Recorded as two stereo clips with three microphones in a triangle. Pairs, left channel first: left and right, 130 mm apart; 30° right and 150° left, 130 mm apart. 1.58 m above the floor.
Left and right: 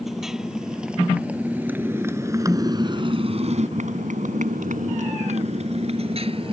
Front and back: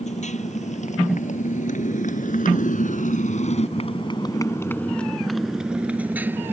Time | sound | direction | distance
0.0 | a motorcycle | straight ahead | ?